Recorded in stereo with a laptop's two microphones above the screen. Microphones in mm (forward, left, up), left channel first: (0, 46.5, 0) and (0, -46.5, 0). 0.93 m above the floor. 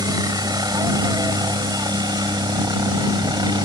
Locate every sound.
0.0 s a helicopter: 45° right (ahead or behind)